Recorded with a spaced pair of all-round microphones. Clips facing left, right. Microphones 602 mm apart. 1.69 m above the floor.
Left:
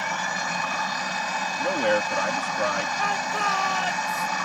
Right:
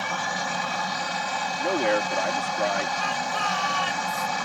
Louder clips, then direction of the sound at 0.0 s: Right 1 dB; 60° right (ahead or behind).